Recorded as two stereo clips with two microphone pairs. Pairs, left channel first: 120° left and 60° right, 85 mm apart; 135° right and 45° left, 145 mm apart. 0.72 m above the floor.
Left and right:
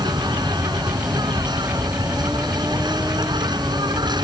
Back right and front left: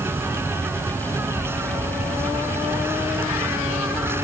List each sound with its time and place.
0.0 s an insect: 30° right